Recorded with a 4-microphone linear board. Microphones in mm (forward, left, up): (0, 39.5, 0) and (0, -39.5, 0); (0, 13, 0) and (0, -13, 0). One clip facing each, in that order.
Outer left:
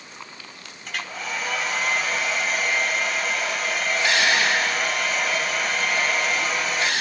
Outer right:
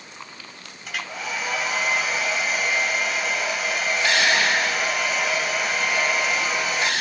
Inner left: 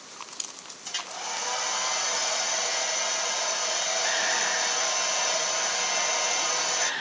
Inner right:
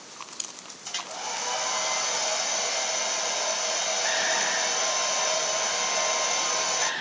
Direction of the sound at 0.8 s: 5° right (ahead or behind).